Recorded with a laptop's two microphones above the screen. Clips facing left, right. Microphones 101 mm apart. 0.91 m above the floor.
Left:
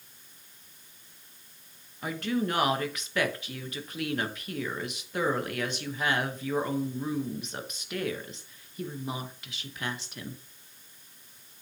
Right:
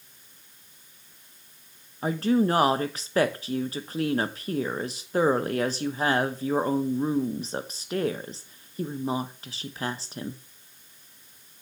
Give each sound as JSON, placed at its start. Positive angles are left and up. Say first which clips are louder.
{"t": 2.0, "sound": "a woman speaking", "louder": "right 7 dB", "side_deg": -35, "distance_m": 0.9}